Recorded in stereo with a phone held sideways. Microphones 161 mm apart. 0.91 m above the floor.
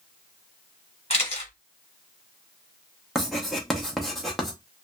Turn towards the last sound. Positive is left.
turn(degrees=0)  # may be behind; listen again after turning